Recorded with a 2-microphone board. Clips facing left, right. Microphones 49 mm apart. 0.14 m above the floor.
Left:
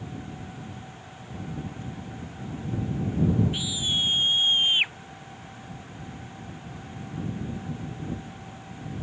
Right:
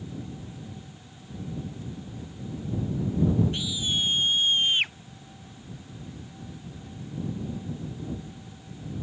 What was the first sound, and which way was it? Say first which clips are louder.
A scream: left 1 dB; 10° left (ahead or behind).